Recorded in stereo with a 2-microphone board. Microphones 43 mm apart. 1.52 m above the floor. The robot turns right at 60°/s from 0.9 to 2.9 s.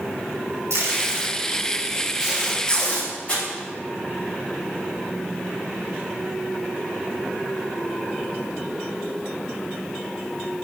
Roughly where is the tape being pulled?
Right.